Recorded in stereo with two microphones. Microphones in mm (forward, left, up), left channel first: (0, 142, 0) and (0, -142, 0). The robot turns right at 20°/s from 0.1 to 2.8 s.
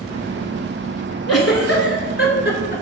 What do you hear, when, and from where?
1.3 s a giggle: 60° left (ahead or behind), 0.7 m; by 2.8 s 40° left (ahead or behind), 0.7 m